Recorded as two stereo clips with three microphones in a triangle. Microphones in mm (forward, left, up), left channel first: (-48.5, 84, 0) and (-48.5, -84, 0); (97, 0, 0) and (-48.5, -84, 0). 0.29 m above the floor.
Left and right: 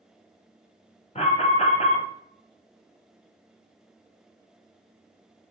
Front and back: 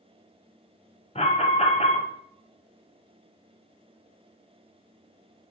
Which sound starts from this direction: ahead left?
An alarm, at 1.1 s.